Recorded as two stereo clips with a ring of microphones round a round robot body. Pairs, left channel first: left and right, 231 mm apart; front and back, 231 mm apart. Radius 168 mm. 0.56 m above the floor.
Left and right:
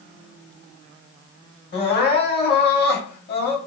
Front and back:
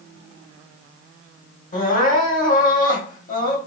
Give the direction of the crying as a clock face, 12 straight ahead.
10 o'clock.